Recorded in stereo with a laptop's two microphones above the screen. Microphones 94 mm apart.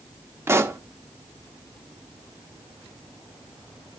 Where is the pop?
25° right (ahead or behind), 0.7 m.